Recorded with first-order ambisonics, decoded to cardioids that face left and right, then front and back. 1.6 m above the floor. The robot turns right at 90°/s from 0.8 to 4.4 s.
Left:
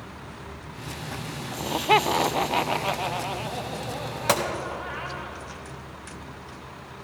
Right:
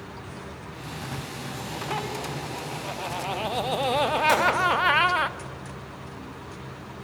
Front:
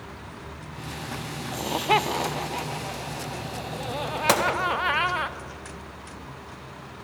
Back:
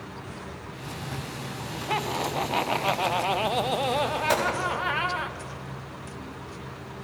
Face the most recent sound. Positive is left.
turn(degrees=40)